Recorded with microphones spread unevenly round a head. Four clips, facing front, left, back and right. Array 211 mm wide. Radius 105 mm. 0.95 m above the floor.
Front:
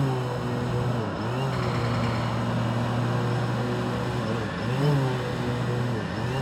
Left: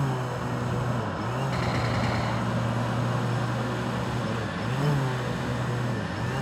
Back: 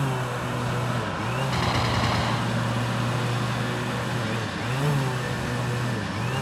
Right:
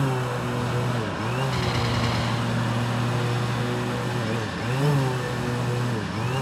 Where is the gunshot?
150° left.